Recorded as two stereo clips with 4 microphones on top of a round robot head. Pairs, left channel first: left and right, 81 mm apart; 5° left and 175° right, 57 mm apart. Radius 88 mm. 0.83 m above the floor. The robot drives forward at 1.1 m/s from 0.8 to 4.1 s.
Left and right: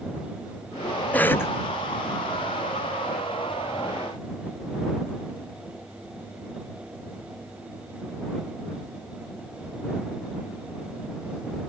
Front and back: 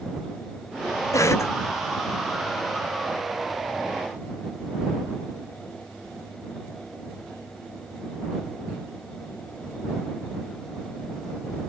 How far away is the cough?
About 0.9 m.